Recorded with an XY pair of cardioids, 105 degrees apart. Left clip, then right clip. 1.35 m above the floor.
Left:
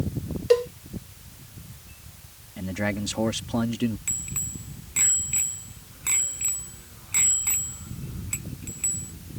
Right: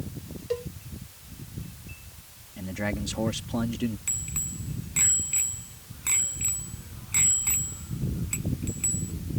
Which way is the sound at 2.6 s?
25° left.